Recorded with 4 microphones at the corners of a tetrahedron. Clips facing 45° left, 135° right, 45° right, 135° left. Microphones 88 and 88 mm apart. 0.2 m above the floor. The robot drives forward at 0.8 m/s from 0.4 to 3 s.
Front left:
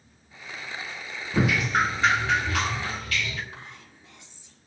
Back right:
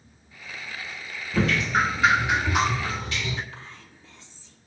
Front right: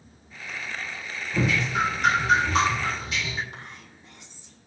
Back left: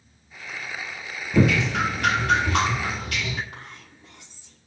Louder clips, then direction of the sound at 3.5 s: Even, even; 115° left.